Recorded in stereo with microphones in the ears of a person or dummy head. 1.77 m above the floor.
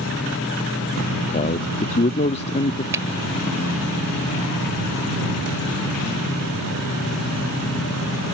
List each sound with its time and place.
1.3 s a man speaking: 35° left (ahead or behind)
2.9 s a finger snap: 15° right (ahead or behind)